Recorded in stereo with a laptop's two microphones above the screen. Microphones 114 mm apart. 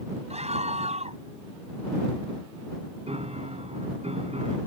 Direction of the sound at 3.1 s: 65° right (ahead or behind).